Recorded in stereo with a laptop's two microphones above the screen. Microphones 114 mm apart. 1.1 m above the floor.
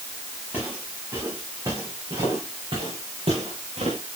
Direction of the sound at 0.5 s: 15° right (ahead or behind).